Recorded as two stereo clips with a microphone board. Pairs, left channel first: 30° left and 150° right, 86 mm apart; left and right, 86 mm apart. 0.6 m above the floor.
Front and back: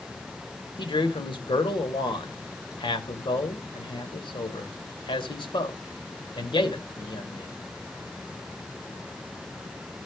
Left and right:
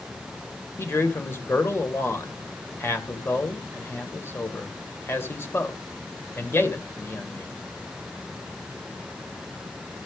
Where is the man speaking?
30° left, 2 m.